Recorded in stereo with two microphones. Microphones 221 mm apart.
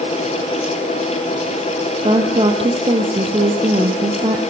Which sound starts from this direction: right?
A woman speaking, at 2.0 s.